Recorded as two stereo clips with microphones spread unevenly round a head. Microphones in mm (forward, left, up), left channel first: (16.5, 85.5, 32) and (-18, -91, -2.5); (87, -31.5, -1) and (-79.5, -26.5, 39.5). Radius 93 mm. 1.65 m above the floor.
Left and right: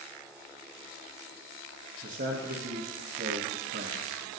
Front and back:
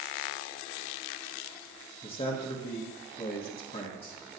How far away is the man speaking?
About 1.3 m.